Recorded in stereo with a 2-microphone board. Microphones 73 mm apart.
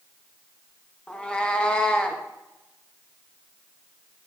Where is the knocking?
I don't hear knocking.